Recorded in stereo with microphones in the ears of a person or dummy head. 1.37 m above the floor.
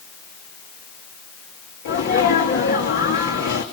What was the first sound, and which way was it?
A sneeze, 50° left (ahead or behind).